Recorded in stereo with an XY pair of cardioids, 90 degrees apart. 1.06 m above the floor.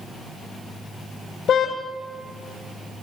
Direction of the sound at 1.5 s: 65° left.